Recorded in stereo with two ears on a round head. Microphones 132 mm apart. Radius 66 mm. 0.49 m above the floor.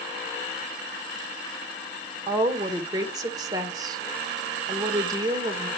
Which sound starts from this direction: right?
A woman speaking, at 2.3 s.